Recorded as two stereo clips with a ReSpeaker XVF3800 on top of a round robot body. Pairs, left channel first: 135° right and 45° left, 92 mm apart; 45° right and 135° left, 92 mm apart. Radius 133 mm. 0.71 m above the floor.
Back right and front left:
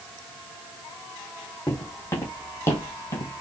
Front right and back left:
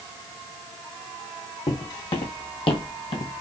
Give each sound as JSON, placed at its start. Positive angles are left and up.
{"t": 1.7, "sound": "footsteps", "azimuth_deg": -65, "distance_m": 2.5}